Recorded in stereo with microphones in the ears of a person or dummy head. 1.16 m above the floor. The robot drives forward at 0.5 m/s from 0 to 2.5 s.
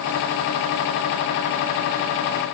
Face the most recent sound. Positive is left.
No sound to turn to.